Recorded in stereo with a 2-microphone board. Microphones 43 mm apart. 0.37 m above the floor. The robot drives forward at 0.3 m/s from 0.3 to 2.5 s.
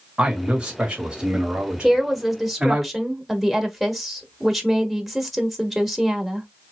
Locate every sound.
0.2 s a man speaking: 25° right (ahead or behind), 1.7 m; by 2.8 s 20° right (ahead or behind), 2 m
1.8 s a woman speaking: 5° right (ahead or behind), 0.8 m